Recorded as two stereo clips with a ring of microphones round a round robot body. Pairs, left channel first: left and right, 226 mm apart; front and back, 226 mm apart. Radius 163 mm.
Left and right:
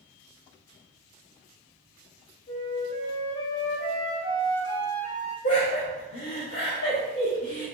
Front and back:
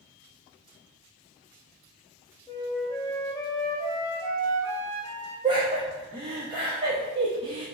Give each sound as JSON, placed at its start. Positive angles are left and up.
{"t": 2.5, "sound": "a flute", "azimuth_deg": 70, "distance_m": 1.0}
{"t": 5.4, "sound": "laughter", "azimuth_deg": 110, "distance_m": 0.9}